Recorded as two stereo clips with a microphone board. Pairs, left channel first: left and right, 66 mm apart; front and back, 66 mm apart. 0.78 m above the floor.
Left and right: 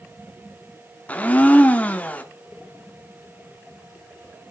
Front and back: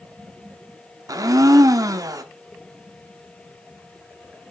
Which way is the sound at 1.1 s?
155° left.